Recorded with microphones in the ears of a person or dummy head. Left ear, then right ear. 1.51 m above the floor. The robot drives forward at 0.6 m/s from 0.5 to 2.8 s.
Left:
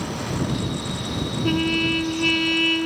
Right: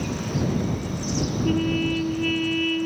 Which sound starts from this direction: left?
A trumpet, at 1.4 s.